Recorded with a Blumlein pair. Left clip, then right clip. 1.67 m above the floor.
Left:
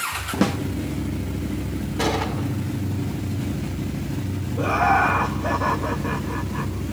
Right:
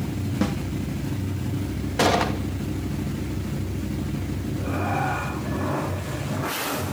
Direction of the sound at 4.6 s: 30° left.